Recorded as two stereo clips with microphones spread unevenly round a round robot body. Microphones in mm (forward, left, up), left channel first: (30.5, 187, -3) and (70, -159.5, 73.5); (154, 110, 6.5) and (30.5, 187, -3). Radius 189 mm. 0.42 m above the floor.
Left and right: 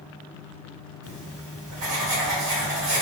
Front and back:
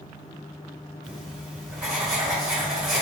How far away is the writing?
About 2.0 m.